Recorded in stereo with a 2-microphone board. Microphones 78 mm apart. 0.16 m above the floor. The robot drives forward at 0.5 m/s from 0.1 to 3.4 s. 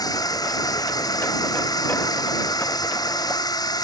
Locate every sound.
0.0 s a drone: 55° left (ahead or behind); by 3.9 s 60° left (ahead or behind)